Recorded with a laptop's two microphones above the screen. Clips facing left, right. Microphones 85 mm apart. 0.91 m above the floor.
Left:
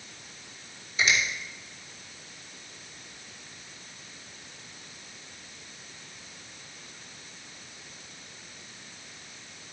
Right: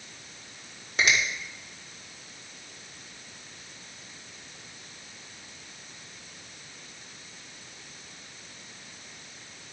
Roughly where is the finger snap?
Right.